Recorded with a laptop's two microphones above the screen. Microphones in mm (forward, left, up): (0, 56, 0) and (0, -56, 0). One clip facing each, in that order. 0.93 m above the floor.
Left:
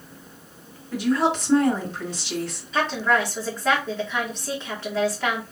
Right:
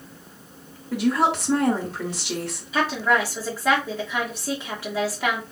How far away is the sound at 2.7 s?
About 1.8 m.